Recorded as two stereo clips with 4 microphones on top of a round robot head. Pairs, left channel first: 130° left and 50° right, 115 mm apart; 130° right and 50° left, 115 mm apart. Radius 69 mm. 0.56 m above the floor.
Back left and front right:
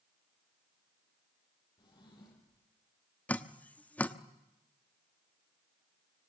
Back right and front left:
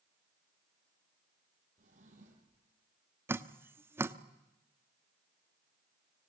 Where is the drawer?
75° left, 7 m.